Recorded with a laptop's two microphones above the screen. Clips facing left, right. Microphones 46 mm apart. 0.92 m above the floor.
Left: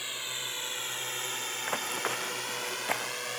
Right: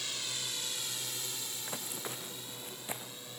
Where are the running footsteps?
45° left (ahead or behind).